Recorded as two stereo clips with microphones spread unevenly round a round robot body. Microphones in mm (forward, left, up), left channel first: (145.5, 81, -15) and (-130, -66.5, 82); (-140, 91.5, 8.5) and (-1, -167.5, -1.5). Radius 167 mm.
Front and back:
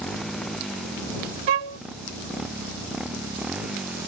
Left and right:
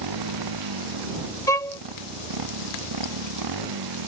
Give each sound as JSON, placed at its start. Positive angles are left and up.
{"t": 0.0, "sound": "a motorcycle", "azimuth_deg": -60}
{"t": 1.5, "sound": "a violin", "azimuth_deg": -160}